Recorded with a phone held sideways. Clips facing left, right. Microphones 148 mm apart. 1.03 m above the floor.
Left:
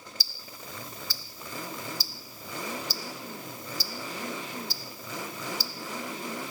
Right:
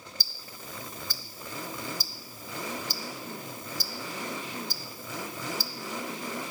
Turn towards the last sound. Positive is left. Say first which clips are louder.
# even
turn(degrees=-50)  # may be behind; listen again after turning